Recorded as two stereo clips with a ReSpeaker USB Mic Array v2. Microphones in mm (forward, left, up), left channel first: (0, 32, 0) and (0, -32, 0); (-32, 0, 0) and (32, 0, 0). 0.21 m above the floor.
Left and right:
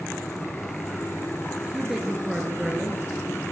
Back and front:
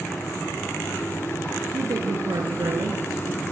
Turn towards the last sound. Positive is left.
turn(degrees=-5)